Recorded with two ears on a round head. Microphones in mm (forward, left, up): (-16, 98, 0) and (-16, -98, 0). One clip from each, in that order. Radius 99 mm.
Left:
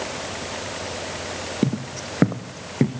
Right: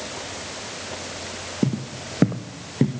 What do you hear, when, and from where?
1.6 s footsteps: 70° left (ahead or behind), 1.2 m